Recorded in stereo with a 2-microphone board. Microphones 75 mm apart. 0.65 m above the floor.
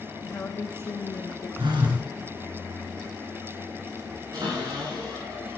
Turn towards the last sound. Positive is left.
turn(degrees=-55)  # may be behind; listen again after turning